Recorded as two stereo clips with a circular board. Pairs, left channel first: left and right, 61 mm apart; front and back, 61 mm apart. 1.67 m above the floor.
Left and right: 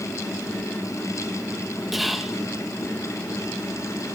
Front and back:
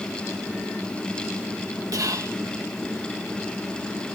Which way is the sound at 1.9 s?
175° right.